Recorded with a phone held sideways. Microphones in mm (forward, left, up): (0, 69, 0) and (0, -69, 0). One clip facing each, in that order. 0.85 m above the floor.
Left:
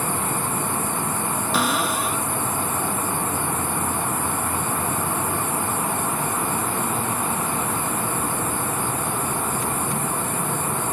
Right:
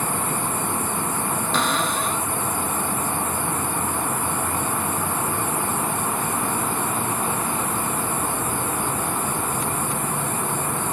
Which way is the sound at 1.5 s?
10° left (ahead or behind).